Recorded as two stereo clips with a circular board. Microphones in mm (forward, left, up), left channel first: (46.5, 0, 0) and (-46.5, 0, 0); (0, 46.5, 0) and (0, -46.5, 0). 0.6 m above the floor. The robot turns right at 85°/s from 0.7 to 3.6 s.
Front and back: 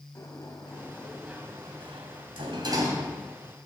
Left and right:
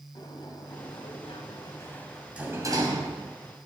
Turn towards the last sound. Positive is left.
turn(degrees=-65)